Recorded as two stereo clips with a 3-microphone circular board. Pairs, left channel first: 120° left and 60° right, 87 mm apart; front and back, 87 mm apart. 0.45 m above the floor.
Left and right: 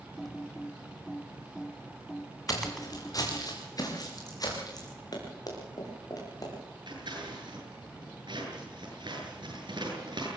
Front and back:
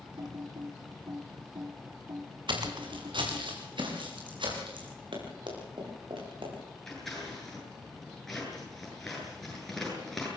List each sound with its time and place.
0.2 s typing on a keyboard: 150° right, 1.6 m
2.5 s footsteps: 165° left, 6.5 m; by 4.9 s 160° left, 8 m
5.1 s running footsteps: 160° left, 8.5 m; by 6.8 s 165° left, 10 m
6.9 s scissors: 90° right, 8.5 m